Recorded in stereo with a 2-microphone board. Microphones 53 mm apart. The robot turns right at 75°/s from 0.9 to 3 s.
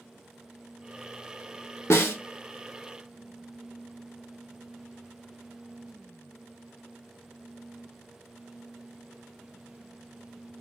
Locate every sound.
1.9 s a snare drum: 55° left (ahead or behind), 0.7 m; by 2.2 s 50° left (ahead or behind), 0.7 m